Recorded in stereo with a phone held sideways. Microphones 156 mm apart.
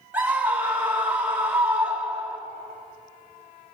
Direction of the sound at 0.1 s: 10° right (ahead or behind).